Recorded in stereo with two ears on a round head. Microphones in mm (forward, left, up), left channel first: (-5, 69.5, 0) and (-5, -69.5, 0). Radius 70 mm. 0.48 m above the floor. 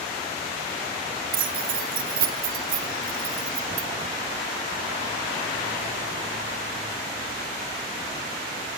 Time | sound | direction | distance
1.3 | keys jangling | 60° right (ahead or behind) | 1.0 m